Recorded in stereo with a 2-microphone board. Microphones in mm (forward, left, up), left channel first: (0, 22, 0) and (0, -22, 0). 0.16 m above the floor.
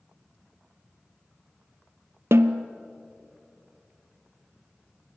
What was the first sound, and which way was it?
A snare drum, 70° right (ahead or behind).